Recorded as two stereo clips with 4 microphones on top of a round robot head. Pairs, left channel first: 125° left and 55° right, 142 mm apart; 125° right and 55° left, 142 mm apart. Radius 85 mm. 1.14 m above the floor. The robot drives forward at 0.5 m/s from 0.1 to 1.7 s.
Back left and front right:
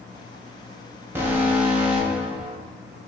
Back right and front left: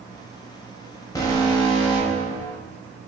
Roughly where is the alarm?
Right.